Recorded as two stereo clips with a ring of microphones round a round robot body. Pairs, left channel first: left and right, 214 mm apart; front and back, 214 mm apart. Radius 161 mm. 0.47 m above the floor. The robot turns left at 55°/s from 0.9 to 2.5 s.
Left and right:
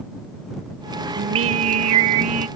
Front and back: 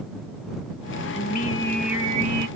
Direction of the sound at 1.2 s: 55° right.